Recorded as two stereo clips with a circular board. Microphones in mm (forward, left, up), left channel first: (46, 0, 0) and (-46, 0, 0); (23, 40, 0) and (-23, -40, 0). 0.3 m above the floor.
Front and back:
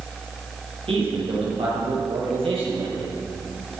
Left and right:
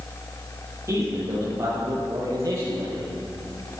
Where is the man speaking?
175° right, 7 m; by 3.1 s 170° right, 9 m.